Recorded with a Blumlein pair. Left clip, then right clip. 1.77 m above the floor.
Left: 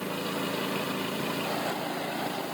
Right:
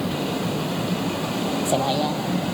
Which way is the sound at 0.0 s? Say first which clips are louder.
Right 5 dB; 45° right.